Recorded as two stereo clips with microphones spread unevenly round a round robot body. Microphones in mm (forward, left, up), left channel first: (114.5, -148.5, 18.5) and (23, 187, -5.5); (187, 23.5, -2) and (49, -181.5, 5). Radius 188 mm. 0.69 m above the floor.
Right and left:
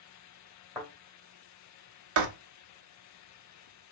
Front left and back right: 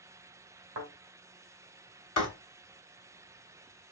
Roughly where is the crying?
I don't hear crying.